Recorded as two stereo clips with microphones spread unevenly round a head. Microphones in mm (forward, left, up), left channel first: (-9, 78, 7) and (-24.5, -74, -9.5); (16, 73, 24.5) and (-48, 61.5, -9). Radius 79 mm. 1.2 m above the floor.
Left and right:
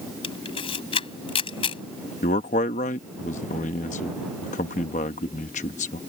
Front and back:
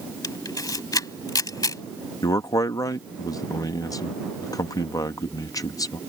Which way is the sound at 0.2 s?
25° left.